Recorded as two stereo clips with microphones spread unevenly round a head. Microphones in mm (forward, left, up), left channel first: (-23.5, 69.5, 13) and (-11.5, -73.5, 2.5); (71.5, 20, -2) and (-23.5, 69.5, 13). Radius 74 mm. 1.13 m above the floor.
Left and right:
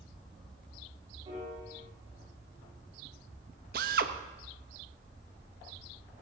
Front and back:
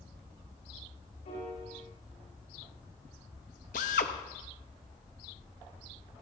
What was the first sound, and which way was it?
A piano, 25° right.